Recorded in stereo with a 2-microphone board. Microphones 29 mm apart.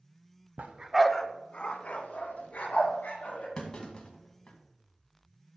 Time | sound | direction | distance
0.6 | a dog barking | 60° right (ahead or behind) | 0.8 m
3.6 | a clunk | 30° left (ahead or behind) | 1.8 m